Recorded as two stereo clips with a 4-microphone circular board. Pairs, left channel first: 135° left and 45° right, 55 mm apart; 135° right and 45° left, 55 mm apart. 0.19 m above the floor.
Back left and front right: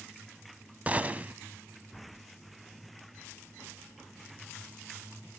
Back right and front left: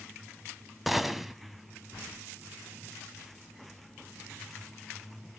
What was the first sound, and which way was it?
A gunshot, 35° right.